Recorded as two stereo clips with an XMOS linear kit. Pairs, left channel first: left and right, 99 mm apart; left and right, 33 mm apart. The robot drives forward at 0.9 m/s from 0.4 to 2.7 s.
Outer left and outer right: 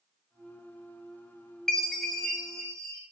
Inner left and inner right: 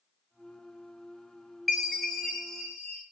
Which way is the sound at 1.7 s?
5° left (ahead or behind).